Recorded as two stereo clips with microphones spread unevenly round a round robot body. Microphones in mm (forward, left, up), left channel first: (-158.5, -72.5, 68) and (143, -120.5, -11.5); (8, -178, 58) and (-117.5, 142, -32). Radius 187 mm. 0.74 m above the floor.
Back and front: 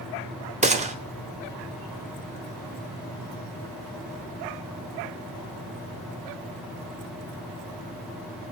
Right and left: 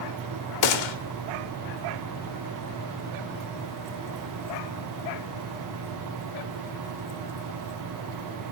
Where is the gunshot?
75° right, 3.5 m.